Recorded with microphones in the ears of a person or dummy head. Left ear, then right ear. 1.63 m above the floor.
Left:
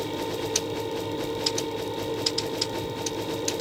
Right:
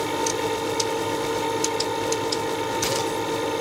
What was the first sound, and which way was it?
A fan, 50° right (ahead or behind).